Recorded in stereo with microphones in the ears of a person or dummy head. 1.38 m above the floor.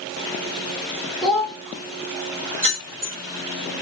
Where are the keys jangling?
45° right (ahead or behind), 1.8 m.